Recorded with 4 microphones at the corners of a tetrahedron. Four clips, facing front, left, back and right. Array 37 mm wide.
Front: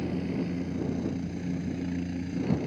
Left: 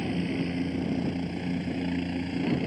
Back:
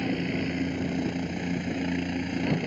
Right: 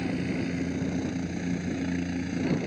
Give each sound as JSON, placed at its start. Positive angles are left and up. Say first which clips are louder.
{"t": 0.0, "sound": "a helicopter", "louder": "even, back 3 dB", "azimuth_deg": 170}